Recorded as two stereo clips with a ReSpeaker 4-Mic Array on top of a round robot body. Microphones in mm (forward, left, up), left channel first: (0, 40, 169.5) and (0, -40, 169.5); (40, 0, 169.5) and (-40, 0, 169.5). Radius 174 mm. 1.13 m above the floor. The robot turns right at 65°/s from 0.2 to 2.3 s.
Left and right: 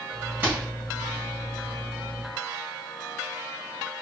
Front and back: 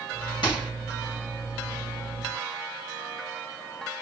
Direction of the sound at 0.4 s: 20° right.